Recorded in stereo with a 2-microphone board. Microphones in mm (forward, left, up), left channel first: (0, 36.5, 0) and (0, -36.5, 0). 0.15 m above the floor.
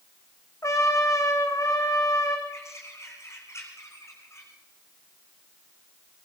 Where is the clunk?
No clunk in this recording.